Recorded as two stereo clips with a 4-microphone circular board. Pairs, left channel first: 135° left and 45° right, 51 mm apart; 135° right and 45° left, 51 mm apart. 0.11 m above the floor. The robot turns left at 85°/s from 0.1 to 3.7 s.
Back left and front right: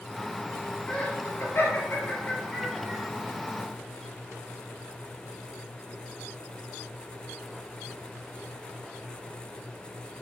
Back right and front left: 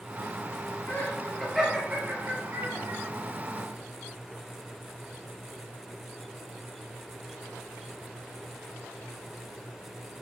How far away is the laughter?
About 2 m.